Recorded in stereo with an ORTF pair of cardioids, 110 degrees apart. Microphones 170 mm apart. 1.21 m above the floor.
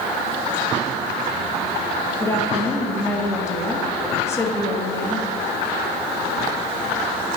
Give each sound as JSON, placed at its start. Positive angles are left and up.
{"t": 2.2, "sound": "a woman speaking", "azimuth_deg": 15, "distance_m": 1.6}